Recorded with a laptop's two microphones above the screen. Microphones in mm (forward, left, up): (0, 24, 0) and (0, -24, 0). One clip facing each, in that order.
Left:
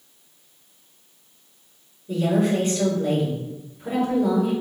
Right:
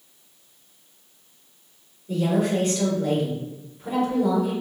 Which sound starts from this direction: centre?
A woman speaking, at 2.1 s.